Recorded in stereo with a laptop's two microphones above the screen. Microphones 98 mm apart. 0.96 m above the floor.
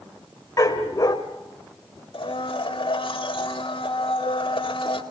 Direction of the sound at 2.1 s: 60° left (ahead or behind).